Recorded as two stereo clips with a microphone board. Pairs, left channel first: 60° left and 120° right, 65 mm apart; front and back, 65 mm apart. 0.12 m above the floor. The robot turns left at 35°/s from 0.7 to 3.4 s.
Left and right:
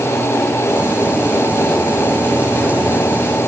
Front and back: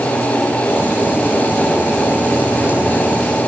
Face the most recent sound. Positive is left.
No sound to turn to.